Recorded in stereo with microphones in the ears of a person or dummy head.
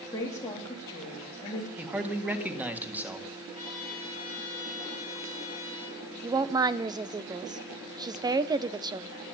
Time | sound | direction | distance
0.1 | a woman speaking | 20° left (ahead or behind) | 3.5 m
1.8 | a man speaking | 10° right (ahead or behind) | 1.7 m
3.5 | a trumpet | 35° right (ahead or behind) | 5 m
6.2 | a woman speaking | 20° right (ahead or behind) | 0.7 m